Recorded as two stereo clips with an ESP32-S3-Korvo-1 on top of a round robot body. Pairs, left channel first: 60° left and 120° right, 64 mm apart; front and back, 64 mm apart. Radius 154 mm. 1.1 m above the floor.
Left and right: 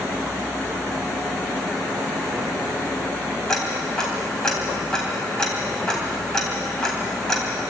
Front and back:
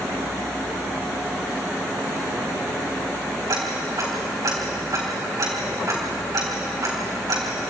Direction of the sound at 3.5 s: 140° left.